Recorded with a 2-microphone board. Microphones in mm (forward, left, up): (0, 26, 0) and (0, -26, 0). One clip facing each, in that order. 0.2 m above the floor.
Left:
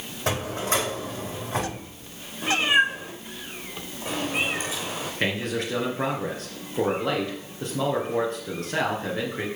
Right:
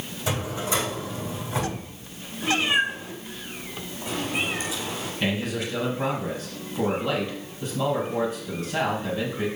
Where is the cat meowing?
30° left (ahead or behind), 3 m.